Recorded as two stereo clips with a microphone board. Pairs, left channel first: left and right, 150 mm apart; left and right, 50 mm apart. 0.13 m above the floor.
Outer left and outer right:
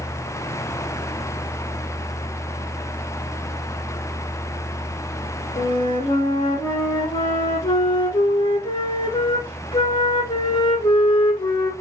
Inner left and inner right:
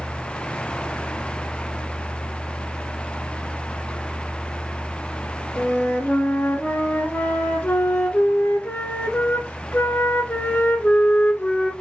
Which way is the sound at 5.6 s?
40° left (ahead or behind).